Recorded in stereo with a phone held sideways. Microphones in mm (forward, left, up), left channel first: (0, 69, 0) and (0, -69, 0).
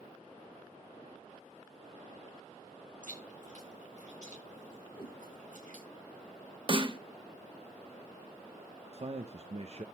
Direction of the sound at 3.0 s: 70° right (ahead or behind).